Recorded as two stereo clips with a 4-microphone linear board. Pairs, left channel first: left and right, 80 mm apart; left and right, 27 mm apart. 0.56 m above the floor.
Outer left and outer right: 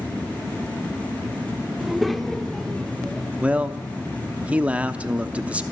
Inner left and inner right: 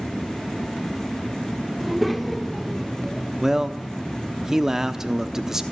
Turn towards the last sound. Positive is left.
turn(degrees=-15)  # may be behind; listen again after turning